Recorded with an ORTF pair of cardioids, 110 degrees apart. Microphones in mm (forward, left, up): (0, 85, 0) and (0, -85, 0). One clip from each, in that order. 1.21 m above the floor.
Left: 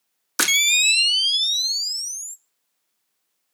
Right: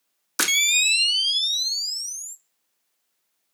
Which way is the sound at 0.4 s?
10° left.